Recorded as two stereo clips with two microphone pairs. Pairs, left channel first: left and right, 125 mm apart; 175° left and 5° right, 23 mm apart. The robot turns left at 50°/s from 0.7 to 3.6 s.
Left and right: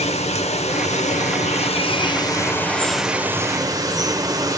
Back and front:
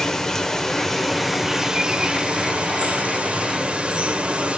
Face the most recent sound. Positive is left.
turn(degrees=-30)